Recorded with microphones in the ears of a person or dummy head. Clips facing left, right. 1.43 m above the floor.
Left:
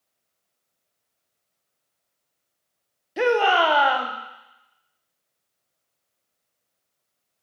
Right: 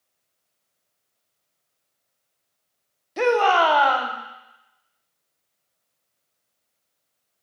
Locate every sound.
3.2 s a shout: 10° left (ahead or behind), 0.7 m